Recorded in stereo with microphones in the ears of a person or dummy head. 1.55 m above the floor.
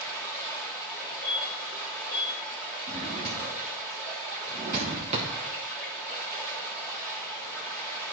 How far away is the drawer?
About 0.9 m.